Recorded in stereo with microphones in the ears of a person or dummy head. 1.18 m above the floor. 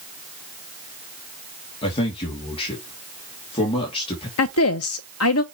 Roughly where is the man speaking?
Left.